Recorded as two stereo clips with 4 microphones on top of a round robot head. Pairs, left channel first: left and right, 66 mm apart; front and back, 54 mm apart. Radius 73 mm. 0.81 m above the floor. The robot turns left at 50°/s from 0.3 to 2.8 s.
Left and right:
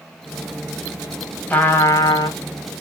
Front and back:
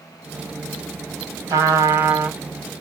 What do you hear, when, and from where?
1.5 s a trumpet: 160° left, 1.3 m; by 2.4 s 115° left, 1.3 m